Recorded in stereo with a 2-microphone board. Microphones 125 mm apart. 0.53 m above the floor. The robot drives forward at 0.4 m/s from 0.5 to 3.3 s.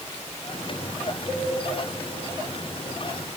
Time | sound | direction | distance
1.3 | a cowbell | 60° left (ahead or behind) | 7 m